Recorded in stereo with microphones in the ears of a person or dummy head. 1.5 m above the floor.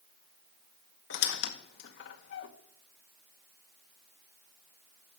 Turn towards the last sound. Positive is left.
turn(degrees=65)  # may be behind; listen again after turning